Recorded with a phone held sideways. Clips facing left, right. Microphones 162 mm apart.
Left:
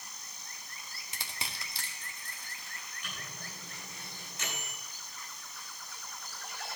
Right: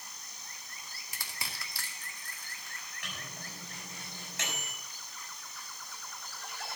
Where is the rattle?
No rattle in this recording.